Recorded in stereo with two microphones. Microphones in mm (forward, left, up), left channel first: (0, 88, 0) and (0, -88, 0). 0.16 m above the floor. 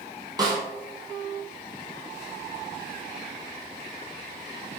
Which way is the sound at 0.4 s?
20° right (ahead or behind).